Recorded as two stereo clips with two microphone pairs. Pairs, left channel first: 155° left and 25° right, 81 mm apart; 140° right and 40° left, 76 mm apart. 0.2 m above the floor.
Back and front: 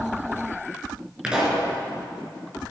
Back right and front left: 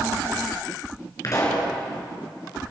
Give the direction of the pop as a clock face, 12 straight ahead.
3 o'clock.